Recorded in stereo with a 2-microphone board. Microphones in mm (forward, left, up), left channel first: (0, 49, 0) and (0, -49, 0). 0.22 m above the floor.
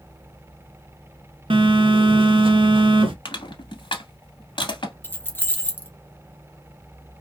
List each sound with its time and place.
1.5 s a phone buzzing: 80° right, 0.5 m
3.2 s crushing: 65° left (ahead or behind), 0.9 m
5.0 s keys jangling: 20° left (ahead or behind), 0.7 m